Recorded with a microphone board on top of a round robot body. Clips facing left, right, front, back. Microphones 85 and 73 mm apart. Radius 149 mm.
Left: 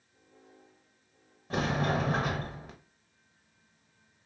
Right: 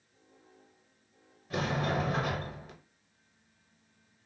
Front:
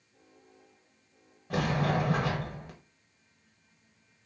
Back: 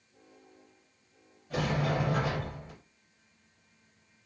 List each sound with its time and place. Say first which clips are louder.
1.5 s a sliding door: left 2 dB, front 2 dB; 35° left, 0.7 m